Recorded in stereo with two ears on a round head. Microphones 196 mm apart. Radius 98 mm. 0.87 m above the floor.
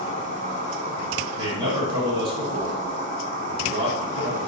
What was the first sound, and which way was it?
An insect, 40° right (ahead or behind).